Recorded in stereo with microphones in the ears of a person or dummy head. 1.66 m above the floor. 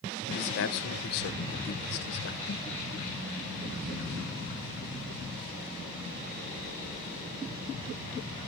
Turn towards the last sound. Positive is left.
turn(degrees=60)  # may be behind; listen again after turning